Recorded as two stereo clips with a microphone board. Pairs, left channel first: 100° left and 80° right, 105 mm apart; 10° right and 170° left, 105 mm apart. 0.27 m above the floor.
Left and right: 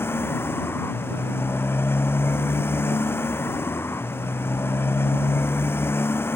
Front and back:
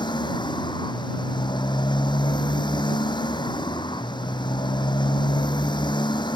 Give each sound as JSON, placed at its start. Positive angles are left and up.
{"t": 0.0, "sound": "a motorcycle", "azimuth_deg": 35}